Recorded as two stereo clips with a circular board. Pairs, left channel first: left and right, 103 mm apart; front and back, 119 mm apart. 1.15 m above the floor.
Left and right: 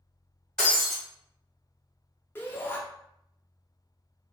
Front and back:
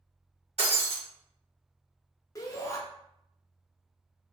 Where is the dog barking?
No dog barking in this recording.